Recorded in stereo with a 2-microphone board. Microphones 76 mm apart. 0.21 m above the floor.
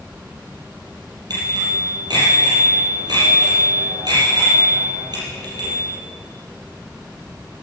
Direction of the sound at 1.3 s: 60° right (ahead or behind).